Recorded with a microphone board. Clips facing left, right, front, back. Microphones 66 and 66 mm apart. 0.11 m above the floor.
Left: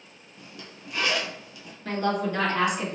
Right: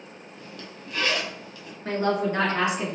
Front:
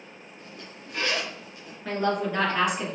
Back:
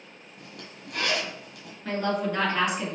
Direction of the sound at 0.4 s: 170° left.